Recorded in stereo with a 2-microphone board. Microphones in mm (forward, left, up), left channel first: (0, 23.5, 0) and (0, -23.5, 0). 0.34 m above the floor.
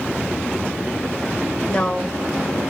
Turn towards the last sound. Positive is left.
turn(degrees=20)  # may be behind; listen again after turning